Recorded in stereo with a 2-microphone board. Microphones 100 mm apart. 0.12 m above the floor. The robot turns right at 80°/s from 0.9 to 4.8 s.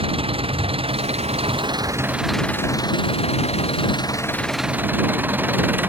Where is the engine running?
115° right; by 5.9 s 160° right.